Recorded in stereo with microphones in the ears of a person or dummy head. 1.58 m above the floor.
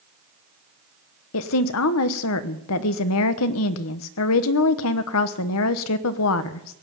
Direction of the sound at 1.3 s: 75° left (ahead or behind).